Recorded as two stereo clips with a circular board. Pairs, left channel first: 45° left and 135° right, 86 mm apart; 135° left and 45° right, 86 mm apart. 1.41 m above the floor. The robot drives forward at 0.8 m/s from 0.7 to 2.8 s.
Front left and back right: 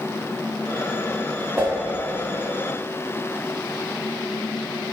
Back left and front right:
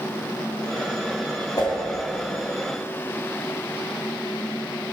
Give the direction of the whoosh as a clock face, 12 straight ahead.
7 o'clock.